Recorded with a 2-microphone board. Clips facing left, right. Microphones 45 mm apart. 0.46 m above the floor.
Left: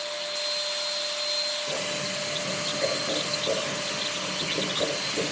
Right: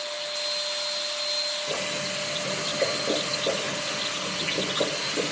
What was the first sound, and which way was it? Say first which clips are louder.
Boiling: right 1 dB; 45° right (ahead or behind).